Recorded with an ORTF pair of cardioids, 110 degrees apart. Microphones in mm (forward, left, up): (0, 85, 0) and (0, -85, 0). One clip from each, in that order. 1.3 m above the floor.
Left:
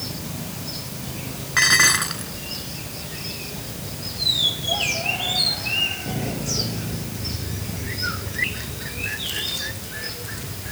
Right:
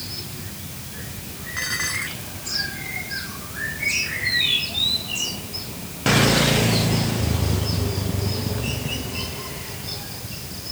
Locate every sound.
1.6 s dishes clattering: 60° left